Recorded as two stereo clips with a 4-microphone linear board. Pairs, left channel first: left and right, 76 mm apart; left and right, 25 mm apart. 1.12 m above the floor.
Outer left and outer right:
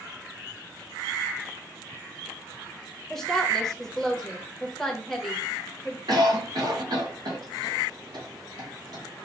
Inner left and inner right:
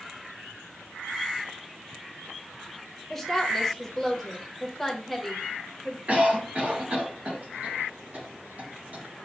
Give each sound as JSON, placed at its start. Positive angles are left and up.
{"t": 3.1, "sound": "a woman speaking", "side_deg": 5, "distance_m": 0.9}
{"t": 6.1, "sound": "a cough", "side_deg": -60, "distance_m": 1.3}